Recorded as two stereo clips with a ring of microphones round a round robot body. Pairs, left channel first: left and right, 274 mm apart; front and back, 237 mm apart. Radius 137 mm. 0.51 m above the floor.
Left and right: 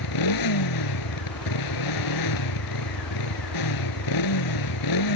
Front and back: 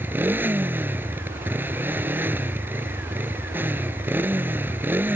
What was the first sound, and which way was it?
A motorcycle, 100° left.